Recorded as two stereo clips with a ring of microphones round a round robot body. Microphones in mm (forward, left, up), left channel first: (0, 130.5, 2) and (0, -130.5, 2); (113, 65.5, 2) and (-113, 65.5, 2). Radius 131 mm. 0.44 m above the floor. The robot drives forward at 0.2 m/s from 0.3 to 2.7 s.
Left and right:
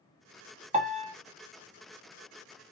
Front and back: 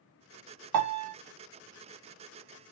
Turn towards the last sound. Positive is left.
turn(degrees=-165)